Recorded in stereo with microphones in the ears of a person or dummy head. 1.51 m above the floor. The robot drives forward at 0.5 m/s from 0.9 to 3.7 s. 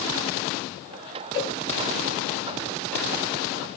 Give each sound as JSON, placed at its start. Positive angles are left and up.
{"t": 1.3, "sound": "a cowbell", "side_deg": 35, "distance_m": 5.5}